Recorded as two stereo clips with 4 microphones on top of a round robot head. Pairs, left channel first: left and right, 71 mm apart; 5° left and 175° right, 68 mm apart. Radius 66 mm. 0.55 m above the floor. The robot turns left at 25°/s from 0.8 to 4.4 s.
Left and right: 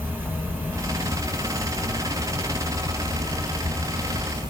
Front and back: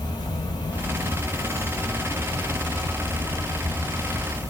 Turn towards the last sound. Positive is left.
turn(degrees=-115)